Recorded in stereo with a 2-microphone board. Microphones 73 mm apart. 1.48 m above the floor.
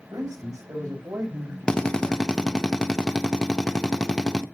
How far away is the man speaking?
About 6.5 m.